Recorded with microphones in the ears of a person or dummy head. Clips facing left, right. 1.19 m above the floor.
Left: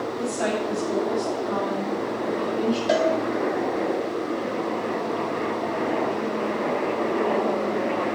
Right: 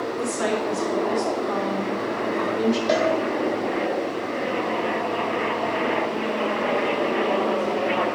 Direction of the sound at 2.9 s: 5° left (ahead or behind).